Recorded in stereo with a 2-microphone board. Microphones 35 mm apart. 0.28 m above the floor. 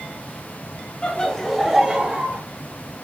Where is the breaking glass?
I don't hear breaking glass.